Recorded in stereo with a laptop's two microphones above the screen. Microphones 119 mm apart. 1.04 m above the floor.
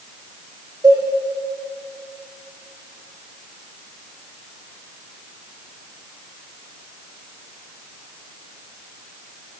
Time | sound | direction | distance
0.8 | a cowbell | 30° right (ahead or behind) | 10 m